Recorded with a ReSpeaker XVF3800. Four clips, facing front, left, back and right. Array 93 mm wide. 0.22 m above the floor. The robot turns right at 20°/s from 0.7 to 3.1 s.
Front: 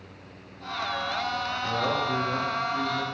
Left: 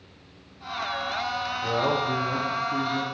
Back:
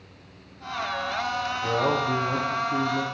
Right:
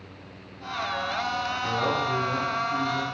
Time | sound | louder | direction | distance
1.6 | a man speaking | left 2 dB, back 4 dB | 145° left | 6.5 m